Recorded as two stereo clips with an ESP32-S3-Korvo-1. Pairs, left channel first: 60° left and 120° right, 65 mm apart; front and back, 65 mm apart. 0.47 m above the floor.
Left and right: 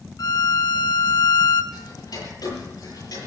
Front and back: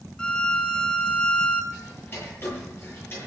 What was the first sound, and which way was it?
A violin, 75° left.